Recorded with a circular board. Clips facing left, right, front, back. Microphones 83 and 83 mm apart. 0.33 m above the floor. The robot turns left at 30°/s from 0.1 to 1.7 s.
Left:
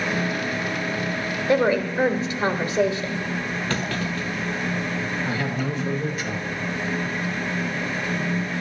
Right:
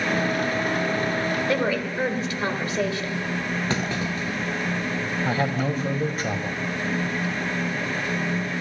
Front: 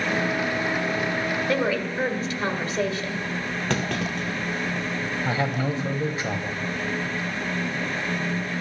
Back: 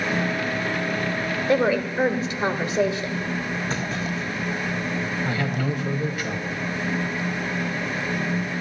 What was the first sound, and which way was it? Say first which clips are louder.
A woman speaking: left 4 dB, back 6 dB; 130° left.